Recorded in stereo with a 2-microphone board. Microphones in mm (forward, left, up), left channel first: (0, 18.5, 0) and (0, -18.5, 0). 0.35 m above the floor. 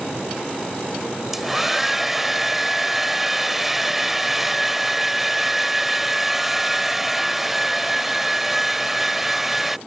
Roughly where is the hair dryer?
Centre.